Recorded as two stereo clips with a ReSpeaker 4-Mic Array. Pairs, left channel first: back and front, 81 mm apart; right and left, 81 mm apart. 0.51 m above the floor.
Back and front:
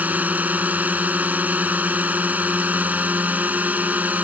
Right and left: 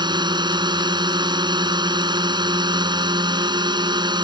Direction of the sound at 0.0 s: 70° left.